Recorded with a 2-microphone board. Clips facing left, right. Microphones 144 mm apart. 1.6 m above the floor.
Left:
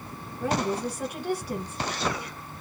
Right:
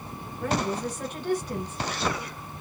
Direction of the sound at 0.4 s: 10° left (ahead or behind).